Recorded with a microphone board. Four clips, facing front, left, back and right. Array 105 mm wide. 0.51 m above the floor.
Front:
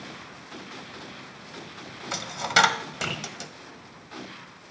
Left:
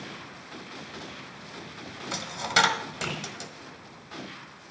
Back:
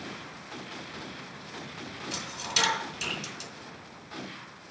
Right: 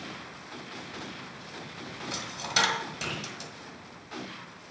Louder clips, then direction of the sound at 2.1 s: Left 6 dB, front 12 dB; 20° left.